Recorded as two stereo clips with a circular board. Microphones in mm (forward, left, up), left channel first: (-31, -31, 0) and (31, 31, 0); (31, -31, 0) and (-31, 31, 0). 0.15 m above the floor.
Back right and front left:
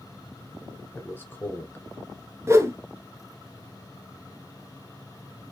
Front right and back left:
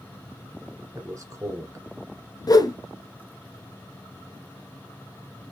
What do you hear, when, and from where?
0.9 s a man speaking: 170° left, 1.5 m
2.5 s a whoosh: 10° right, 0.9 m